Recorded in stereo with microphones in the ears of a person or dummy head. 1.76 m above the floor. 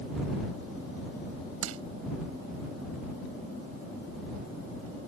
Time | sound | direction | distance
1.6 | crushing | 85° right | ?